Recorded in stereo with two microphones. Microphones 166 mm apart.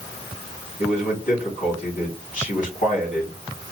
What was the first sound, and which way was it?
A man speaking, 50° left (ahead or behind).